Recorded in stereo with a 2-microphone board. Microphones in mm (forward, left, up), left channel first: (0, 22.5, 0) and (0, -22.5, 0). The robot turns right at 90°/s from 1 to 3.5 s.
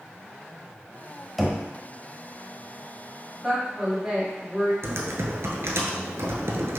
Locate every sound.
1.4 s knocking: centre (ahead or behind), 0.7 m; by 1.6 s 10° right (ahead or behind), 0.7 m
3.4 s a woman speaking: 10° right (ahead or behind), 1.9 m; by 4.7 s 15° right (ahead or behind), 1.9 m
4.8 s typing on a keyboard: 70° right (ahead or behind), 0.7 m